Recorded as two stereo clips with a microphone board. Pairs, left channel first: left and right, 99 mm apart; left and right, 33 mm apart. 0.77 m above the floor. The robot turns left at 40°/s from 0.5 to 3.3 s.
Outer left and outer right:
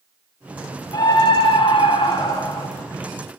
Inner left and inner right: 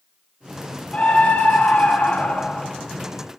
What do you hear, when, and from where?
0.9 s a scream: 120° left, 0.7 m; by 2.7 s 50° left, 0.7 m